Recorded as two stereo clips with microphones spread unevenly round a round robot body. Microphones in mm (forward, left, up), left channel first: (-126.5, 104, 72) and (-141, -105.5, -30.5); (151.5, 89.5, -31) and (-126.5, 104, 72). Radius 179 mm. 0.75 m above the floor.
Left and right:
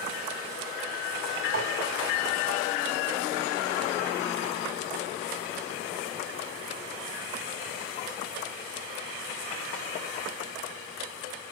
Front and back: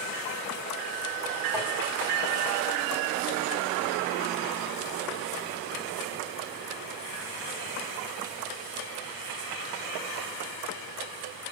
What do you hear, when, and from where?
1.5 s tapping: 95° right, 6 m